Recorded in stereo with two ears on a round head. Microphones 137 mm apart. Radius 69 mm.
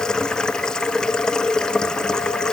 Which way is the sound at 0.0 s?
5° left (ahead or behind).